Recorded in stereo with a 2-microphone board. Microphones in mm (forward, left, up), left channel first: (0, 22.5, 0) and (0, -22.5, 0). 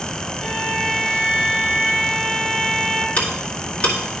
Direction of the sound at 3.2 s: 35° left (ahead or behind).